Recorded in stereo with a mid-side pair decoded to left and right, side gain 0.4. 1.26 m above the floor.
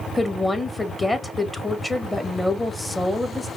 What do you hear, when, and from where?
0.1 s a woman speaking: 10° left, 1.8 m